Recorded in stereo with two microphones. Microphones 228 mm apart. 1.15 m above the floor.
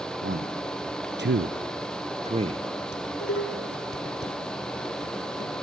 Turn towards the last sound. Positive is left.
turn(degrees=75)  # may be behind; listen again after turning